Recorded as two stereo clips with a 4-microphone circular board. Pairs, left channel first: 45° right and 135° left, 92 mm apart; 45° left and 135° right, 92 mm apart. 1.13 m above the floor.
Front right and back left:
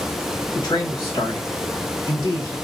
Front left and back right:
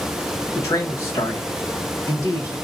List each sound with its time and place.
0.6 s a man speaking: 10° right, 1.4 m